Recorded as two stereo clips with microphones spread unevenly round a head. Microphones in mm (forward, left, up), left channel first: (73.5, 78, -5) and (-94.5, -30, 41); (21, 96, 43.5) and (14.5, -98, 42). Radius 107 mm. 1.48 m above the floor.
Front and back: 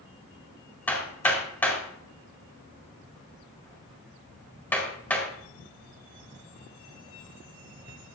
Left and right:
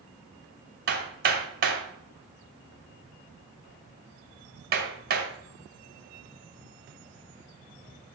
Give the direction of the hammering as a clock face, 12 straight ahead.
2 o'clock.